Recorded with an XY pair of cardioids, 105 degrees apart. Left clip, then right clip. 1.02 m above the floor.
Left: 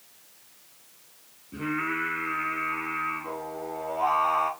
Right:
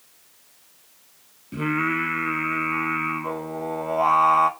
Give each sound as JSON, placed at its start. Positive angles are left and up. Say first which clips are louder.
{"t": 1.5, "sound": "singing", "louder": "right 5 dB", "azimuth_deg": -65, "distance_m": 1.0}